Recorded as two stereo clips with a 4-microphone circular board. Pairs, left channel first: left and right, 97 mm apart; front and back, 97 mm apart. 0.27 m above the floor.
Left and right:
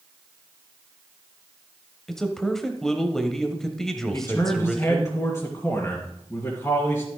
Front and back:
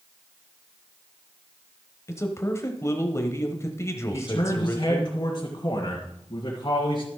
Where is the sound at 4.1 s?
35° left, 2.0 m.